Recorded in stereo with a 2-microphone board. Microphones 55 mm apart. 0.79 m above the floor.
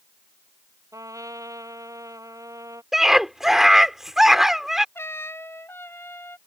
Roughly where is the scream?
Centre.